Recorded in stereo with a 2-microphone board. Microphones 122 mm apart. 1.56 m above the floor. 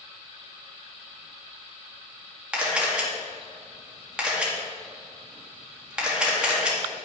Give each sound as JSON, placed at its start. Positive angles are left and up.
{"t": 2.5, "sound": "a camera shutter", "side_deg": -10, "distance_m": 2.0}